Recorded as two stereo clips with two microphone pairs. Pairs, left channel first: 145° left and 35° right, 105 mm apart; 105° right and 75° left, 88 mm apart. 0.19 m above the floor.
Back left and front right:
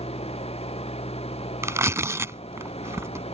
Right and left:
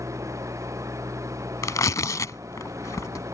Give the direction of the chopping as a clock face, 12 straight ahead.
I don't hear chopping.